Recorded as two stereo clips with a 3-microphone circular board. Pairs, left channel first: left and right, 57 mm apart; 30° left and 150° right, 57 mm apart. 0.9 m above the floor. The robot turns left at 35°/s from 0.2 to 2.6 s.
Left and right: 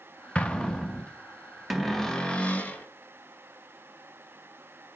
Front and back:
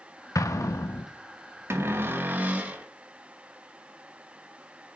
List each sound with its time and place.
0.3 s an explosion: 20° left, 0.5 m; by 1.1 s straight ahead, 0.5 m
1.7 s a cupboard door: straight behind, 0.7 m; by 2.9 s 150° left, 0.7 m